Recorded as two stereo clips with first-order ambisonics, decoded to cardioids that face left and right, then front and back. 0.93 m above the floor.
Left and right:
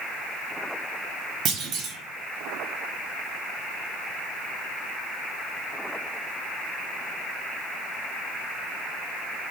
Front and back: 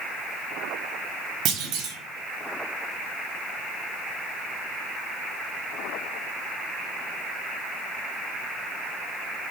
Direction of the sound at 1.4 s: 140° right.